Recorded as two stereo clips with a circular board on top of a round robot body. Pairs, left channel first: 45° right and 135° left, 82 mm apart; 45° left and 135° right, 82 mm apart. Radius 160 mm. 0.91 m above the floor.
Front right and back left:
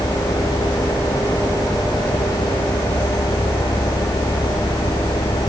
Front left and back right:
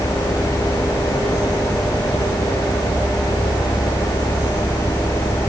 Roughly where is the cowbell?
No cowbell in this recording.